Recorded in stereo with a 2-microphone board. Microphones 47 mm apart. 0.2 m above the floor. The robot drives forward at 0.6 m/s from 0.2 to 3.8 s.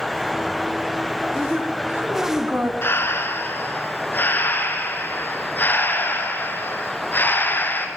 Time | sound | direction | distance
1.4 | a woman speaking | 30° right (ahead or behind) | 1.7 m
2.8 | breathing | 50° left (ahead or behind) | 1.7 m